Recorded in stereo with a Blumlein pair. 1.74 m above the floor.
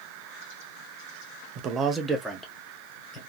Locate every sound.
1.6 s a man speaking: 35° right, 0.7 m; by 3.2 s 15° left, 1.7 m